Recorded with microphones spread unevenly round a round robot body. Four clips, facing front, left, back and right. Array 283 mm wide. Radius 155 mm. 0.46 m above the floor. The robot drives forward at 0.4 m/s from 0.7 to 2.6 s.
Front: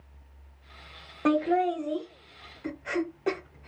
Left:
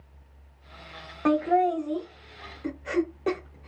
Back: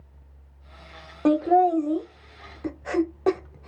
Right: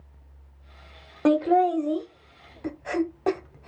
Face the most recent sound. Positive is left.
turn(degrees=-160)